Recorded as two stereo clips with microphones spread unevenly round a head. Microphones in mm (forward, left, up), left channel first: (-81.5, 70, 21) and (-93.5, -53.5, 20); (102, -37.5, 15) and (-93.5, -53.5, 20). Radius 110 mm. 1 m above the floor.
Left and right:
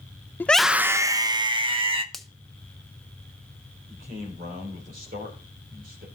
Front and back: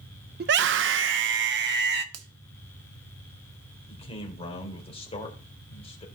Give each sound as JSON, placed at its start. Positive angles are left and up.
{"t": 0.4, "sound": "a scream", "azimuth_deg": 160, "distance_m": 0.6}
{"t": 2.1, "sound": "a finger snap", "azimuth_deg": 175, "distance_m": 1.0}
{"t": 3.9, "sound": "a man speaking", "azimuth_deg": -55, "distance_m": 3.5}